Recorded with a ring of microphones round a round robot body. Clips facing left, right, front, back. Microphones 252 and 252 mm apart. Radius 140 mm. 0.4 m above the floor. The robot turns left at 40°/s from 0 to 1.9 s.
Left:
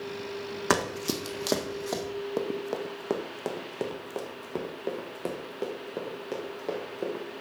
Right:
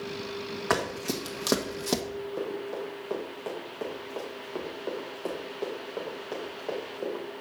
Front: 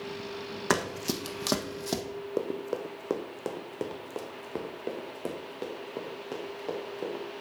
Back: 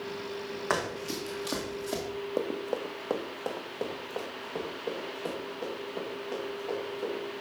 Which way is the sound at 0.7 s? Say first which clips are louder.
Left 2 dB, front 5 dB; 45° left.